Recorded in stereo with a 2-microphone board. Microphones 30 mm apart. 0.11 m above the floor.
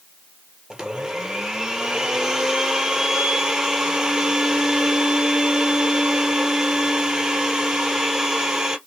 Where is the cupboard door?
No cupboard door in this recording.